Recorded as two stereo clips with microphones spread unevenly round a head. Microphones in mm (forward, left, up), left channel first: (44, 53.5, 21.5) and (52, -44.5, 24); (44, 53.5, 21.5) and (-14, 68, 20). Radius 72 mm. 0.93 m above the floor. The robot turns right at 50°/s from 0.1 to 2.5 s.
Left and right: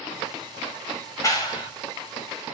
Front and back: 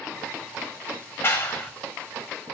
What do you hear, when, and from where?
1.2 s a clap: 40° left, 5.5 m; by 1.7 s 60° left, 5.5 m